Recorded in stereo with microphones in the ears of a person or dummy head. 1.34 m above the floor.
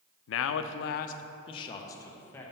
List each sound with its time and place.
0.3 s a man speaking: 75° left (ahead or behind), 0.5 m; by 2.5 s 10° left (ahead or behind), 1.1 m